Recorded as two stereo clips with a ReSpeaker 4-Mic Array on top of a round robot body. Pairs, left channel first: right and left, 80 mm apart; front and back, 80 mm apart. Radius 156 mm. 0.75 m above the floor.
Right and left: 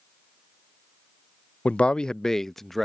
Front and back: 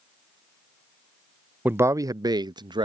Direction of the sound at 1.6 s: 140° right.